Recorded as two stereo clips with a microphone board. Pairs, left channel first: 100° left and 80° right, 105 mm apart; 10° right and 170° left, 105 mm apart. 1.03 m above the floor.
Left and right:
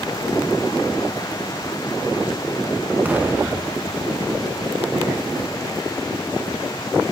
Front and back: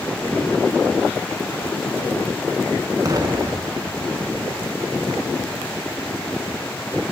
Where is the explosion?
150° right, 1.2 m.